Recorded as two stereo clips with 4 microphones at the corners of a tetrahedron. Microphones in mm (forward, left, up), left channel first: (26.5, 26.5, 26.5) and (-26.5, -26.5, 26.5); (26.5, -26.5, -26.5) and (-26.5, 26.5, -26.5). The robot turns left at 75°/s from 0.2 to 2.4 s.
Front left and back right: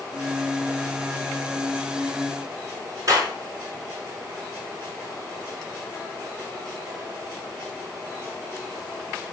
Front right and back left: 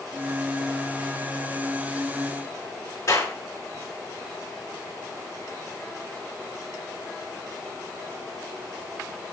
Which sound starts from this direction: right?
A clap, at 3.1 s.